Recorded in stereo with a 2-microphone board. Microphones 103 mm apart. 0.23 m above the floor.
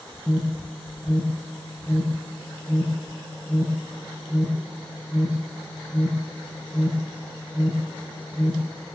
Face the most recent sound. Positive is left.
turn(degrees=-10)  # may be behind; listen again after turning